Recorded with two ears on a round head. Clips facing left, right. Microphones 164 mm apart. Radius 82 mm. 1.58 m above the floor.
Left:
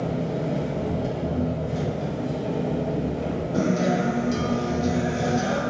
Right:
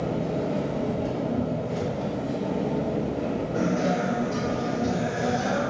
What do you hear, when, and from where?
0.0 s an engine running: 30° left (ahead or behind), 1.7 m
3.5 s a guitar: 45° left (ahead or behind), 0.6 m